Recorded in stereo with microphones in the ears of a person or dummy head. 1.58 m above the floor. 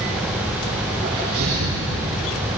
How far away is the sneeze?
About 4 m.